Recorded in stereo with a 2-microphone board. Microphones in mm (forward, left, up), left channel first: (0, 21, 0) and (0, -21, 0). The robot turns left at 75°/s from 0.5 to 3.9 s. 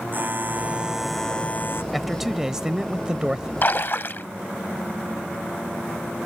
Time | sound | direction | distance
0.1 | a buzzer | 135° right | ?
1.9 | a man speaking | centre (ahead or behind) | ?
3.6 | a splash | 45° left (ahead or behind) | ?